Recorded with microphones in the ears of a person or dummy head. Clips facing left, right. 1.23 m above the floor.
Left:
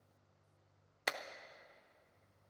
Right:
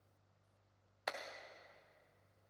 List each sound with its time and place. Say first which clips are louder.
1.1 s a clap: left 2 dB; 40° left (ahead or behind), 0.6 m